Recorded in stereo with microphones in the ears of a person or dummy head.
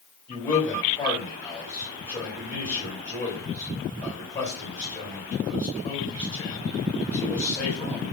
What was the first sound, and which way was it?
A man speaking, 15° left (ahead or behind).